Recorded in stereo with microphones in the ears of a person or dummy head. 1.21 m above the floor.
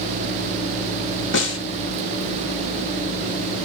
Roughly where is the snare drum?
Left.